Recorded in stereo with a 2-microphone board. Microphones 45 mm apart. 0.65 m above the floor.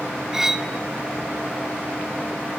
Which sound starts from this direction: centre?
Cutlery clinking, at 0.3 s.